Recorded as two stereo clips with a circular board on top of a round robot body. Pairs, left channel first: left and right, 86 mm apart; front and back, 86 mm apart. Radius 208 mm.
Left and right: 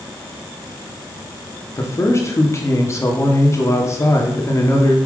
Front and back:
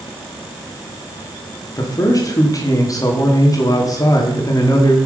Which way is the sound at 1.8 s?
40° left.